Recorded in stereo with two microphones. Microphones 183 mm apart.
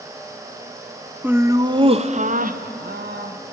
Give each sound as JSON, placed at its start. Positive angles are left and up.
{"t": 1.2, "sound": "laughter", "side_deg": -10, "distance_m": 0.9}